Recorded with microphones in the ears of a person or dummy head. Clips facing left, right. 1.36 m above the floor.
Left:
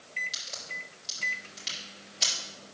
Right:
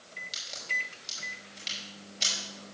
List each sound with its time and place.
0.3 s a crack: centre (ahead or behind), 5.5 m